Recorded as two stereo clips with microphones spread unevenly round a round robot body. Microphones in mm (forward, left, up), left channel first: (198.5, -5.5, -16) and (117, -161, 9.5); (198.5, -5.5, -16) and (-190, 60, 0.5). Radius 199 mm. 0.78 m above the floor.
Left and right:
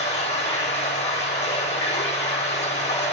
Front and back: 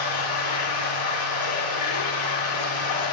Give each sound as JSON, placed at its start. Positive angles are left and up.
{"t": 0.0, "sound": "running water", "azimuth_deg": 45, "distance_m": 5.5}